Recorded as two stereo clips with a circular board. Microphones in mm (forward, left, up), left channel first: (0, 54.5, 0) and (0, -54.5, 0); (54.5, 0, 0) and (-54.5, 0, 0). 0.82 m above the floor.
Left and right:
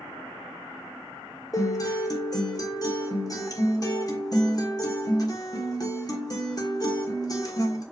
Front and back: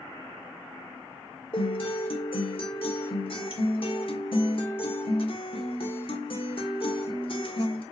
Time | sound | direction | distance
1.5 | a guitar | 35° left | 1.6 m